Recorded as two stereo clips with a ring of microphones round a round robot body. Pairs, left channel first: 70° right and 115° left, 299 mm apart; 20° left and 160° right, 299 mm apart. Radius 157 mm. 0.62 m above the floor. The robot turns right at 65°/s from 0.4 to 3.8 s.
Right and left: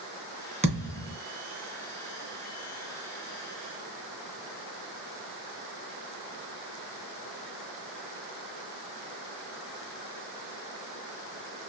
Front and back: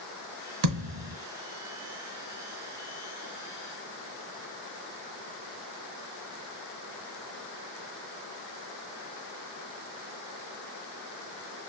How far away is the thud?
About 1.4 m.